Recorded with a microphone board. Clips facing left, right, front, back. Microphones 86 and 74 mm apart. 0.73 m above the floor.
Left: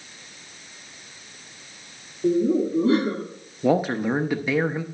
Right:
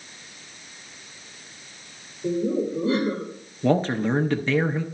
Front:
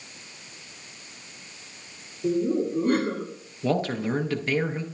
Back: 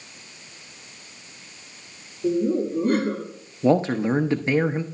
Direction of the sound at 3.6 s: 160° left.